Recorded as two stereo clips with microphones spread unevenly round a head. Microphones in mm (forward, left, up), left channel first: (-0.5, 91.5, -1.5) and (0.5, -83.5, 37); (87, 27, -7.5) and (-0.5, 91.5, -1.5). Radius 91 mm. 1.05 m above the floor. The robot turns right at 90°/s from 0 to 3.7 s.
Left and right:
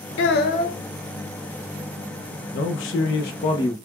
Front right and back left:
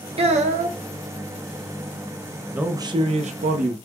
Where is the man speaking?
60° left, 0.5 m; by 3.8 s 165° left, 0.5 m.